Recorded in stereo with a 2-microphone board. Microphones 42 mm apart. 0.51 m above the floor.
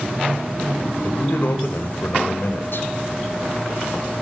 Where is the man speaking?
60° left (ahead or behind), 2 m.